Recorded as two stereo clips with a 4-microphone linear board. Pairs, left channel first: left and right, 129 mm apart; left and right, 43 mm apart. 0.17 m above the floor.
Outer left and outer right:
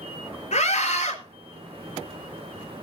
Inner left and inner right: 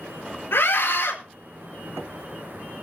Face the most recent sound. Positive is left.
turn(degrees=65)  # may be behind; listen again after turning